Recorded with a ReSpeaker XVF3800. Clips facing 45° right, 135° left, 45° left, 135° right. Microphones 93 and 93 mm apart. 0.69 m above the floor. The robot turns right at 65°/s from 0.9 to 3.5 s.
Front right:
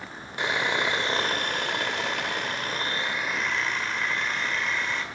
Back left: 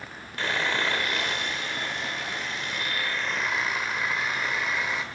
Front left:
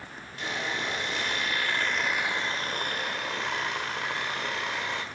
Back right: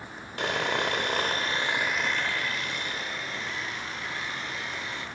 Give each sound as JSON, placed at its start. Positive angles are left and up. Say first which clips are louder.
{"t": 0.4, "sound": "sawing", "louder": "front right 1 dB, back right 5 dB", "azimuth_deg": -115, "distance_m": 1.9}